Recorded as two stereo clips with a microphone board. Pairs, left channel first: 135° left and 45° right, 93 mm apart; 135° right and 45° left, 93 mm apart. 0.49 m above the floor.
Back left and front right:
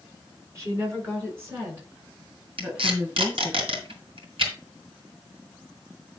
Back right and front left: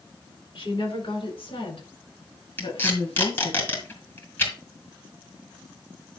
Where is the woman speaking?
105° right, 6.5 m; by 3.6 s 120° right, 7.5 m.